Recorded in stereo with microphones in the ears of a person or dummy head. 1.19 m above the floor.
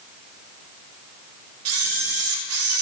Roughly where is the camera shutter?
Right.